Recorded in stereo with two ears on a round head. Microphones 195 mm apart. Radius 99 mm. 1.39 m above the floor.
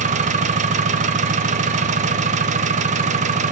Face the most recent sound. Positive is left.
turn(degrees=-35)  # may be behind; listen again after turning